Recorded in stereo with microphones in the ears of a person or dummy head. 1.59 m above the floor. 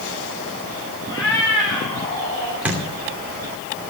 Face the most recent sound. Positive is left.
turn(degrees=-5)  # may be behind; listen again after turning